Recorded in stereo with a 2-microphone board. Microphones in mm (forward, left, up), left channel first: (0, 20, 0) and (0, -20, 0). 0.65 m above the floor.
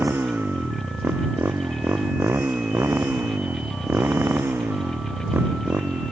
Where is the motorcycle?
80° right; by 6.1 s 75° right (ahead or behind).